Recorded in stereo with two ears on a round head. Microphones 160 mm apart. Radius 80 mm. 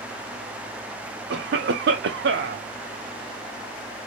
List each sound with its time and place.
1.3 s a cough: 65° right (ahead or behind), 0.6 m